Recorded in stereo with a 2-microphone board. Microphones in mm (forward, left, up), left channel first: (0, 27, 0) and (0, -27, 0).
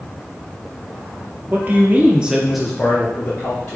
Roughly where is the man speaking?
Right.